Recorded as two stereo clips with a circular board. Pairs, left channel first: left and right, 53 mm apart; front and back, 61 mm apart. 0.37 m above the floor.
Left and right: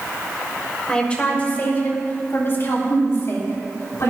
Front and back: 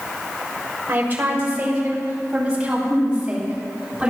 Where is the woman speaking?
155° left, 1.6 m; by 4.1 s 100° left, 4 m.